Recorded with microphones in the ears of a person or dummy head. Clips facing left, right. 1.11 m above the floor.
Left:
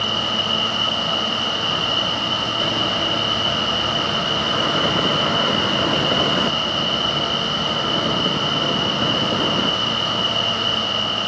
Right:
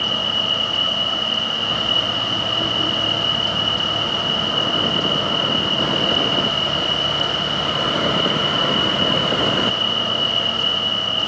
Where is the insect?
45° right (ahead or behind), 5.5 m.